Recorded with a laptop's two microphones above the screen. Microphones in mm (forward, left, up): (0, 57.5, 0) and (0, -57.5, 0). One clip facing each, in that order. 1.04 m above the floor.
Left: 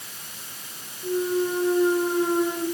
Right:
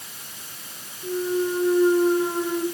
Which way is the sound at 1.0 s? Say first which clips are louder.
Even; centre (ahead or behind).